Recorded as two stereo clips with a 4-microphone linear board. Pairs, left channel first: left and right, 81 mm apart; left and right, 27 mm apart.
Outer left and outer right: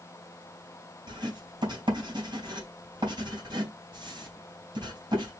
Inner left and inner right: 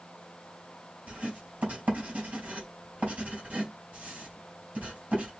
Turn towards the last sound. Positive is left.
turn(degrees=-70)  # may be behind; listen again after turning